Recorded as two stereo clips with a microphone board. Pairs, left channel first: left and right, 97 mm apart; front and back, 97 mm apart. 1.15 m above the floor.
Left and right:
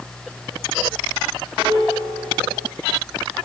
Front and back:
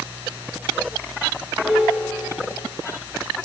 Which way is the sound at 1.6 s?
85° right.